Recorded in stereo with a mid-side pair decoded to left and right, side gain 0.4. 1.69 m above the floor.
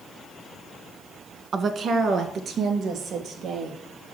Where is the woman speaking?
50° right, 1.2 m; by 3.8 s 70° right, 3.5 m.